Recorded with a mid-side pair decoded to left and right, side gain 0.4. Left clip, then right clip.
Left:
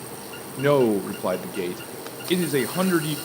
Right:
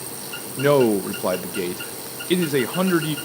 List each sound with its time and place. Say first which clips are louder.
0.6 s a man speaking: right 2 dB; 15° right, 0.8 m